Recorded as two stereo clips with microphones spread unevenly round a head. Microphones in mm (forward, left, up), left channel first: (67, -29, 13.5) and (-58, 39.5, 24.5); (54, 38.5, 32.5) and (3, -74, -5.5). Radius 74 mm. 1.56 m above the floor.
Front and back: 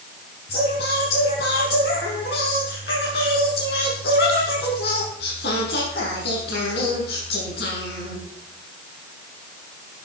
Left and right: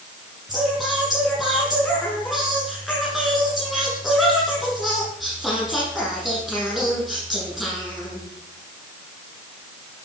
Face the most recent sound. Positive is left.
turn(degrees=-25)